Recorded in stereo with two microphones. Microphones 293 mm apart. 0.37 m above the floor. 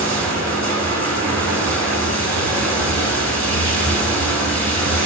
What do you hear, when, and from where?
0.0 s running water: 60° right (ahead or behind), 0.8 m